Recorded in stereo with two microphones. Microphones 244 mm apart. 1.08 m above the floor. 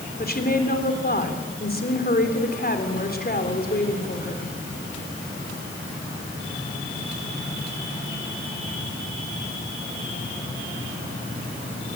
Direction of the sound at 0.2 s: 40° left (ahead or behind).